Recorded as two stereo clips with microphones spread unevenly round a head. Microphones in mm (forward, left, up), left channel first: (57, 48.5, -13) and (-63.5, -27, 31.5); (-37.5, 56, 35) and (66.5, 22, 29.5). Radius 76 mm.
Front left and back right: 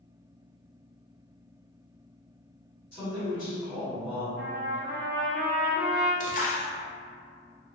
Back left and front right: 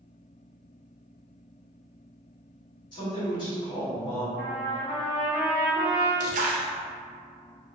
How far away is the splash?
About 0.5 m.